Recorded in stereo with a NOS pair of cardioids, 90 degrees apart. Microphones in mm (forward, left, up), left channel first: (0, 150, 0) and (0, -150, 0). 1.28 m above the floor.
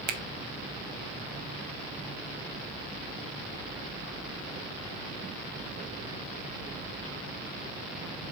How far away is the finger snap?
About 0.5 m.